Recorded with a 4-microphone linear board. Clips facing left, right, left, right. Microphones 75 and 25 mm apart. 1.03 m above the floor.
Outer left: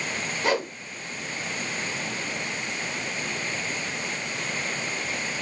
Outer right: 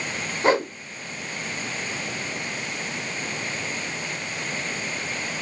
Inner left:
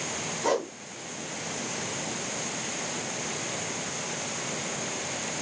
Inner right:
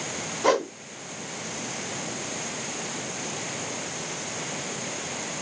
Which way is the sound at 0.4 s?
35° right (ahead or behind).